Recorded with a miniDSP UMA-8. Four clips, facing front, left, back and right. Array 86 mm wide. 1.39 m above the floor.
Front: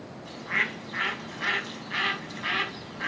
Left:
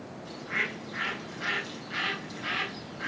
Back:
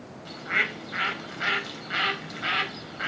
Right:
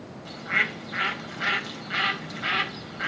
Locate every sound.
0.2 s a bird: 145° right, 4 m